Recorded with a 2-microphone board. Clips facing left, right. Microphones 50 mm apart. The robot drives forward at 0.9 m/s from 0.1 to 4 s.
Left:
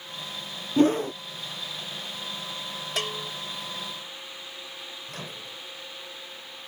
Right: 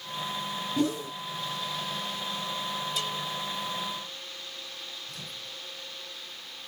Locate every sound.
0.8 s a whoosh: 40° left (ahead or behind); by 1.1 s 55° left (ahead or behind)
3.0 s a bell: 60° left (ahead or behind)
5.1 s a microwave: 55° left (ahead or behind)